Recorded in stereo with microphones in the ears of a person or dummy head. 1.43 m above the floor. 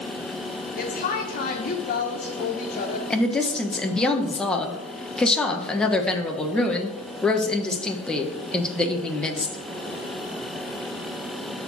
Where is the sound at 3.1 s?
5° left (ahead or behind), 1.1 m.